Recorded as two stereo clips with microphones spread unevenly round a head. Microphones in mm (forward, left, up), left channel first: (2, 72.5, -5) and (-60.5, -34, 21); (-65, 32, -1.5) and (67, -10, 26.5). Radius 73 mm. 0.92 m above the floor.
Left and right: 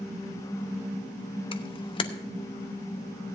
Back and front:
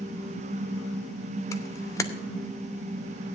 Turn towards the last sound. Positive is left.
turn(degrees=100)